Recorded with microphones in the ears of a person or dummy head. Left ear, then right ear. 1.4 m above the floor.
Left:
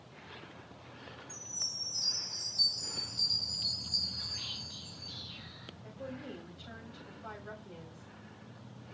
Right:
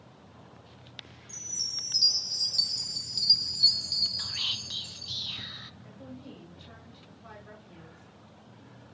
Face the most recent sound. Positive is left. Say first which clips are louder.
# left 3 dB
turn(degrees=35)  # may be behind; listen again after turning